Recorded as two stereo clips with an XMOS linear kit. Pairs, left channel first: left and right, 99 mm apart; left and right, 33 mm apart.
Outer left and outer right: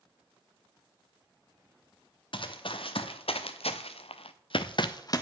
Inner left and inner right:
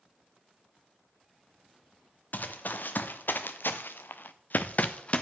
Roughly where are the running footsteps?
Left.